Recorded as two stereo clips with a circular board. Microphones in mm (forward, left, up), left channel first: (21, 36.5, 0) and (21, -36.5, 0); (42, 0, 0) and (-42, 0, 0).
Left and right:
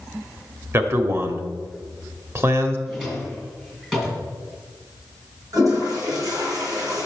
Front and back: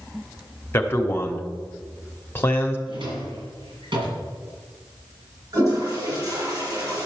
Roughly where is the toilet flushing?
Behind right.